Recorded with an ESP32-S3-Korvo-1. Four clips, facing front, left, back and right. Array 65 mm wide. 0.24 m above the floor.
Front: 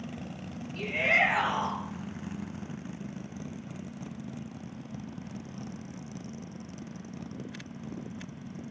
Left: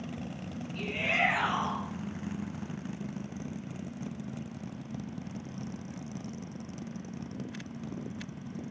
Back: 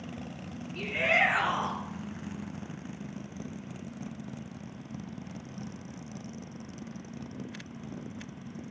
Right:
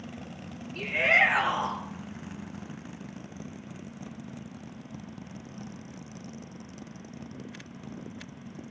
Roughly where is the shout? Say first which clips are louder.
Right 7 dB, front 1 dB; behind right.